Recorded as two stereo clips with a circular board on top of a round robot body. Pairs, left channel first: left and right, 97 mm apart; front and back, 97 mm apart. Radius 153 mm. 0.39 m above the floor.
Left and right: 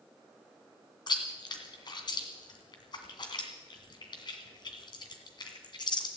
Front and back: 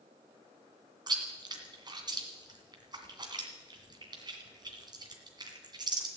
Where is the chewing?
135° left, 2 m.